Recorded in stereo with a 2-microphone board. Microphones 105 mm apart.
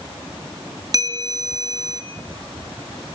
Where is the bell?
35° right (ahead or behind), 2.5 m.